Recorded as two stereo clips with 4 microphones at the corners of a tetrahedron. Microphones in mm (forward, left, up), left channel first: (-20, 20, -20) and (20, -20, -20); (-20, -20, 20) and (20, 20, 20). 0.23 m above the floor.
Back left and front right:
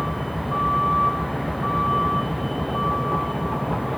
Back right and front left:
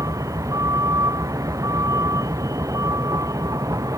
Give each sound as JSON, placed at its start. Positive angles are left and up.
{"t": 0.0, "sound": "a vehicle", "azimuth_deg": 45}